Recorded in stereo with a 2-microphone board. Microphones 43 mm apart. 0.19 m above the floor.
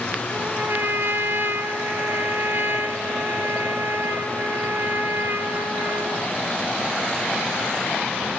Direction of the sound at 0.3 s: 60° right (ahead or behind).